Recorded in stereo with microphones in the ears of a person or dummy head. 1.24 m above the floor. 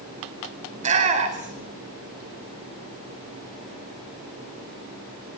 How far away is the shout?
About 4.5 m.